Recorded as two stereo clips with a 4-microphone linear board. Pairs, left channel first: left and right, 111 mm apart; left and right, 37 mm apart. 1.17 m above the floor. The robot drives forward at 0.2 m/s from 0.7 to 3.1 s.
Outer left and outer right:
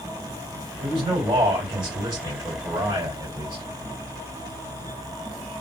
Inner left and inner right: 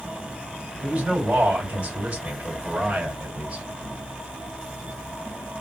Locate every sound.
0.8 s a man speaking: 45° right (ahead or behind), 2 m; by 3.6 s 40° right (ahead or behind), 2.5 m